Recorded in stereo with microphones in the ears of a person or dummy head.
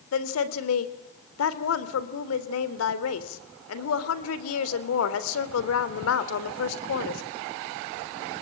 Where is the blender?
I don't hear a blender.